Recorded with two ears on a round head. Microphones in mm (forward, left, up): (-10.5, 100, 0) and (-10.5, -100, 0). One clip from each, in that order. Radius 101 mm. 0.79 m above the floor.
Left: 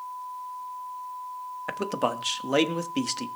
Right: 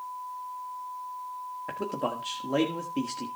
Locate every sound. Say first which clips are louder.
1.7 s a man speaking: left 4 dB; 45° left (ahead or behind), 1.3 m